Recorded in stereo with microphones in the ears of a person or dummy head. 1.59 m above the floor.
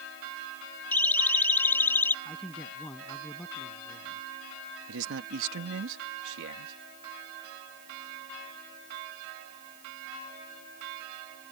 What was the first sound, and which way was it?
A siren, 10° left (ahead or behind).